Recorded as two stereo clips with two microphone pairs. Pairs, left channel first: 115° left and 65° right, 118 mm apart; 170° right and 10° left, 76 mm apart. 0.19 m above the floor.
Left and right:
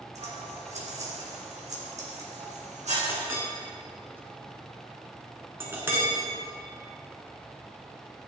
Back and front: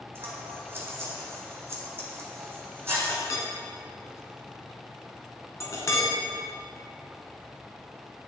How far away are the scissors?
About 2 m.